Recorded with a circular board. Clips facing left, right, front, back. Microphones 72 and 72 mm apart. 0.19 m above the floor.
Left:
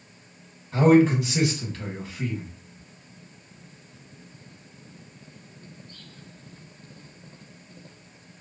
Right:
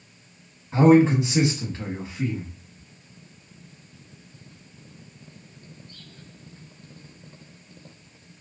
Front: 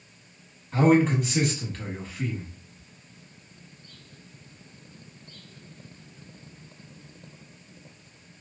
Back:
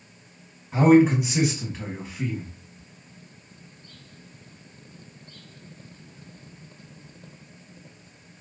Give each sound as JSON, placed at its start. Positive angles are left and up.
{"t": 0.7, "sound": "a man speaking", "azimuth_deg": -120, "distance_m": 1.3}